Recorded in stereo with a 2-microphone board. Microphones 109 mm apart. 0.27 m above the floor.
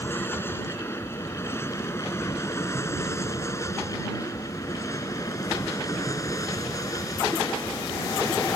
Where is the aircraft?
20° left (ahead or behind); by 8.6 s 35° left (ahead or behind).